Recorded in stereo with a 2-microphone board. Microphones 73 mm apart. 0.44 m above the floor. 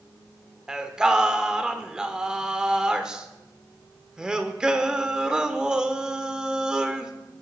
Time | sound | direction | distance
0.7 | singing | 10° right (ahead or behind) | 0.7 m